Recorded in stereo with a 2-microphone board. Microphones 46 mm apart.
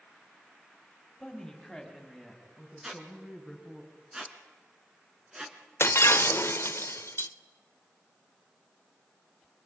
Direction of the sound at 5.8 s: 70° left (ahead or behind).